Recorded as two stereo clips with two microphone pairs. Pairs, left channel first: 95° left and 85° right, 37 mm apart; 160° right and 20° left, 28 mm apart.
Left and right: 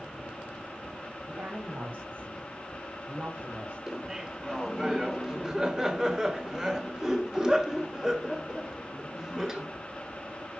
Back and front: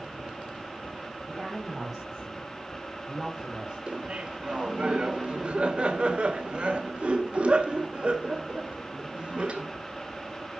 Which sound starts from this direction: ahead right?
A woman speaking, at 1.3 s.